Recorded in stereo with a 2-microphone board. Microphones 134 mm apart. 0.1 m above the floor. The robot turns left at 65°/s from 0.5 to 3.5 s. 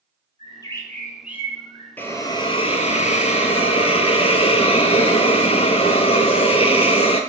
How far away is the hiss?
About 0.5 m.